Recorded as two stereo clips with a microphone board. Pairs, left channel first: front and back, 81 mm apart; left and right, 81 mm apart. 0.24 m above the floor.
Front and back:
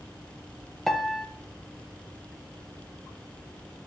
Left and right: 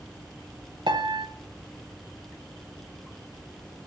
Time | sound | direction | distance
0.9 | a piano | 90° right | 0.7 m